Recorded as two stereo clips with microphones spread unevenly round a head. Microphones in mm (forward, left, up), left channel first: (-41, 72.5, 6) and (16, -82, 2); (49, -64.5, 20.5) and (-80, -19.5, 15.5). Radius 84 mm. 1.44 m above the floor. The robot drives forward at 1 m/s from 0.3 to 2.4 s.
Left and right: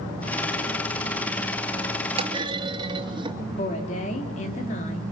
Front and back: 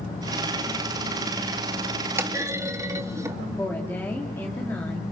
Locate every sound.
2.2 s a clunk: 130° right, 2.5 m; by 3.4 s 135° right, 2.5 m
3.6 s a woman speaking: 60° left, 4 m